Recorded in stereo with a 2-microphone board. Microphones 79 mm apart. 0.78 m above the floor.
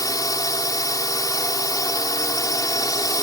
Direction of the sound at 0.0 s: 45° left (ahead or behind).